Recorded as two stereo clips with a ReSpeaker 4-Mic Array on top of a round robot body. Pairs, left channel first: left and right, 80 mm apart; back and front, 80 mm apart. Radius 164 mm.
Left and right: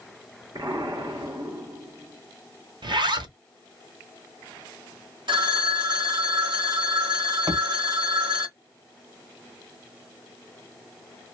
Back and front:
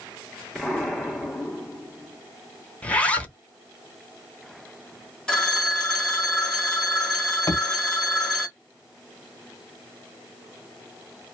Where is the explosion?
90° right, 1.7 m.